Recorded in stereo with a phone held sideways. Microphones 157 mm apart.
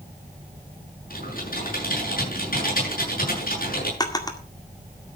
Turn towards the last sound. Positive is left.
turn(degrees=25)  # may be behind; listen again after turning